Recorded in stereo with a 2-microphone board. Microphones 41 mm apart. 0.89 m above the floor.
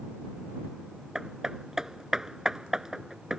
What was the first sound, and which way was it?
Hammering, 15° right (ahead or behind).